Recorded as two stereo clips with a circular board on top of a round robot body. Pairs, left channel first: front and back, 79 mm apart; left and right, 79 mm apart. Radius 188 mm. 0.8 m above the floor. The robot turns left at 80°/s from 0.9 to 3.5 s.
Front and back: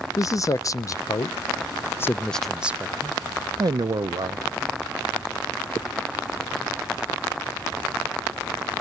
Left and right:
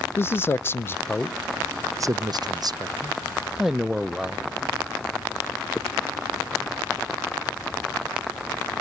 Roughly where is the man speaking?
Ahead left.